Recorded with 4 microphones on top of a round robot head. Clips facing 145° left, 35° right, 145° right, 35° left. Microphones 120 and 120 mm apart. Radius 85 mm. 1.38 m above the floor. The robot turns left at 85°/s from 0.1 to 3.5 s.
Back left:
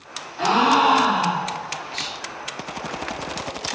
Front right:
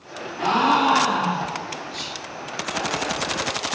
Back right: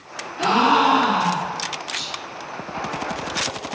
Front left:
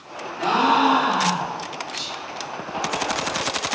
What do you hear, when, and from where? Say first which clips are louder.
0.4 s a gasp: back left 2 dB, back right 1 dB; 150° right, 1.1 m; by 1.7 s 100° left, 1.1 m
1.9 s whispering: back left 1 dB, even; 45° right, 1.9 m; by 2.2 s 70° right, 1.9 m